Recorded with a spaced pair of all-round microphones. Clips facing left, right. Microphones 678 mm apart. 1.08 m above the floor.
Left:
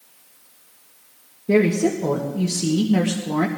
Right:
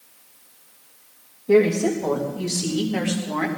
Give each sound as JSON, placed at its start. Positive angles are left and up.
{"t": 1.5, "sound": "a woman speaking", "side_deg": 50, "distance_m": 1.7}